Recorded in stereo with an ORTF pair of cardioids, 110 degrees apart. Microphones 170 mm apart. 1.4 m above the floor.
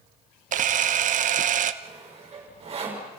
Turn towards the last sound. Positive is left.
turn(degrees=-35)